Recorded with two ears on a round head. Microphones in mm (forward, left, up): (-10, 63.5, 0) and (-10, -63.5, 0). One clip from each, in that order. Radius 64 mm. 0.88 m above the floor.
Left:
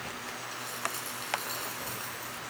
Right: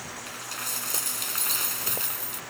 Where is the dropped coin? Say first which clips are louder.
Right 4 dB; 50° right (ahead or behind).